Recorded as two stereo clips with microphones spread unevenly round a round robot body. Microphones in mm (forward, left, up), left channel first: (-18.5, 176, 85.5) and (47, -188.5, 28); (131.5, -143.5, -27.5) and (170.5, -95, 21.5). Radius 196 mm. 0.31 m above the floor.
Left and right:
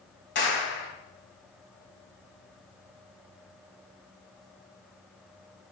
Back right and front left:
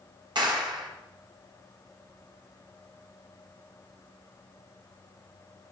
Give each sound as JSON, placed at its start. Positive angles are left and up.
{"t": 0.3, "sound": "a clap", "azimuth_deg": 35, "distance_m": 2.5}